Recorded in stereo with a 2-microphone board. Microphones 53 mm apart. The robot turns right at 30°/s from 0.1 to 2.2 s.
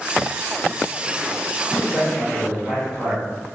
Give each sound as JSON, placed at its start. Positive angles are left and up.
{"t": 1.7, "sound": "a man speaking", "side_deg": -10, "distance_m": 0.8}